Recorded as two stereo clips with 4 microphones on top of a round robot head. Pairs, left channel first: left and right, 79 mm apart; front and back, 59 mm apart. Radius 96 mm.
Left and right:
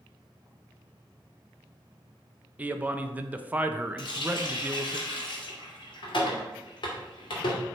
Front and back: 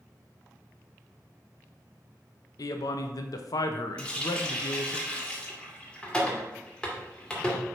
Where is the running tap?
75° left, 2.0 m.